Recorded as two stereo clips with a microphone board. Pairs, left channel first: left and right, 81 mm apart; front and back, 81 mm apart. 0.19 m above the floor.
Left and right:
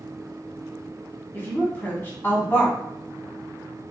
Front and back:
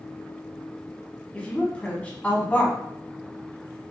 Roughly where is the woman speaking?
Ahead left.